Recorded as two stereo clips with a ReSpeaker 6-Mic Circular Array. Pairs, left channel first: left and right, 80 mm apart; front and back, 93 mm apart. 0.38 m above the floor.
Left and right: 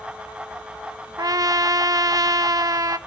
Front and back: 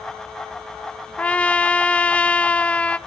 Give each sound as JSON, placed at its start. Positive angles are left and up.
{"t": 1.2, "sound": "a trumpet", "azimuth_deg": -75, "distance_m": 0.6}